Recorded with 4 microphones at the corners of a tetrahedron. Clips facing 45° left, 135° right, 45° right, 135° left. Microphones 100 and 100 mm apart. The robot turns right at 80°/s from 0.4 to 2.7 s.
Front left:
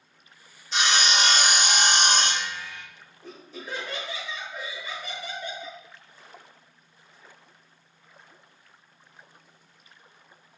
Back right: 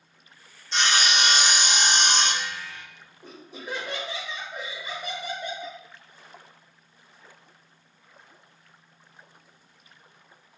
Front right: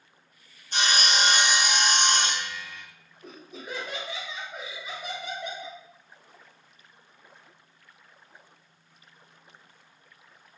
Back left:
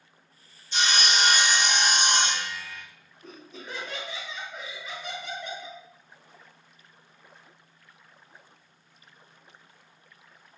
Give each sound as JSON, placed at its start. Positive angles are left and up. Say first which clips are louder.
{"t": 0.7, "sound": "sawing", "louder": "even, even", "azimuth_deg": -40, "distance_m": 0.5}
{"t": 3.2, "sound": "laughter", "louder": "back right 1 dB, front right 1 dB", "azimuth_deg": -100, "distance_m": 0.9}